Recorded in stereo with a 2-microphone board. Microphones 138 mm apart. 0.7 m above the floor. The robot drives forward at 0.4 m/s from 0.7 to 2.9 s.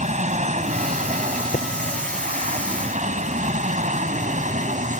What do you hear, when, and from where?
0.0 s an aircraft: 60° right (ahead or behind)
1.5 s tapping: 75° left (ahead or behind)